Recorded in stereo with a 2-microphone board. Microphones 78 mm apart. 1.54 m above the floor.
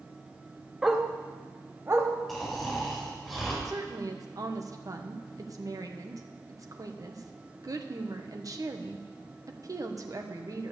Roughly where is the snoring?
Centre.